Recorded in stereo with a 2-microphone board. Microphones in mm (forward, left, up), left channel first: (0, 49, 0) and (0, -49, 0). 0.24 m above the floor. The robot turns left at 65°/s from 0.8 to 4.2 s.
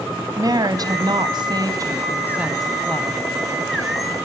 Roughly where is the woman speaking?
Ahead right.